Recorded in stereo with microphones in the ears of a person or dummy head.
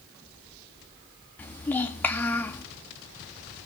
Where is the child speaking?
15° left (ahead or behind), 2 m.